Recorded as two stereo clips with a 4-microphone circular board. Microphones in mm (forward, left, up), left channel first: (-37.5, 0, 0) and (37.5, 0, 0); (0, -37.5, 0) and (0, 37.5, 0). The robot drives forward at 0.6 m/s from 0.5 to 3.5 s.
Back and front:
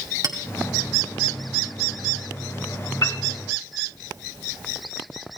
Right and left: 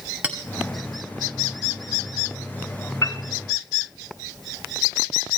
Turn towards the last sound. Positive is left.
turn(degrees=-150)